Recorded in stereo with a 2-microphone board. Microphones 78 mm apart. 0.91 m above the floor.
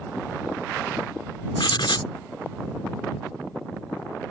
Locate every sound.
1.6 s writing: 80° left